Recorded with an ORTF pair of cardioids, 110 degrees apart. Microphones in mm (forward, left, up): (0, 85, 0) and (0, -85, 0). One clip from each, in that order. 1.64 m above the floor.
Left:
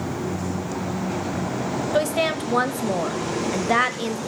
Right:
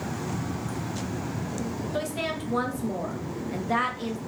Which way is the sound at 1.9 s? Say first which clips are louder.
Left 9 dB; 40° left.